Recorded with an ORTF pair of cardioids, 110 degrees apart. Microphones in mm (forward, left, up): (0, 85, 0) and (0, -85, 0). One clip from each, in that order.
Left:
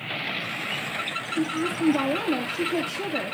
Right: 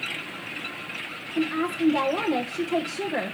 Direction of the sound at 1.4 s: 65° right.